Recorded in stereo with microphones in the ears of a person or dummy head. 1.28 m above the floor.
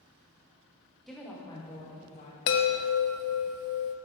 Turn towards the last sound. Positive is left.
turn(degrees=55)  # may be behind; listen again after turning